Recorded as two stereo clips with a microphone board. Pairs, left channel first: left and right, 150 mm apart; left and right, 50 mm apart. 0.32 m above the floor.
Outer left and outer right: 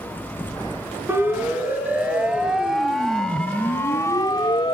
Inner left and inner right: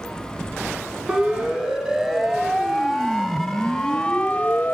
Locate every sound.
1.1 s a siren: 15° right (ahead or behind), 3 m; by 4.7 s 35° left (ahead or behind), 1.3 m